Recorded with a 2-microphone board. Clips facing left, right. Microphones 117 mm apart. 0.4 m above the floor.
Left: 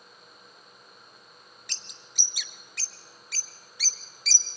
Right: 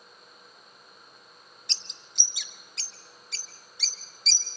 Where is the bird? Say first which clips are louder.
Even; 25° right (ahead or behind), 1.0 m.